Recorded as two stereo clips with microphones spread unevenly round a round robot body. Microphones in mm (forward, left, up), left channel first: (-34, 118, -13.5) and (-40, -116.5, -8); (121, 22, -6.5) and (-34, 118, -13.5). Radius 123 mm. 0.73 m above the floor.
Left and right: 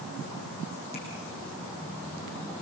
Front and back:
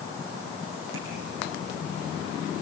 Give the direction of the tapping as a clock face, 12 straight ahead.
7 o'clock.